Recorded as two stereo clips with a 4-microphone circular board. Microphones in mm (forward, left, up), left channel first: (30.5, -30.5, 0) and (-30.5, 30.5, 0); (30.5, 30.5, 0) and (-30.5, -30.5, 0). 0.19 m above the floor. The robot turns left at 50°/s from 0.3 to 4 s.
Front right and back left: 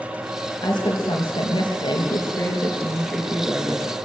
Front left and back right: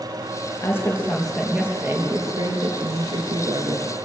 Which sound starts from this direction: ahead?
A woman speaking, at 0.6 s.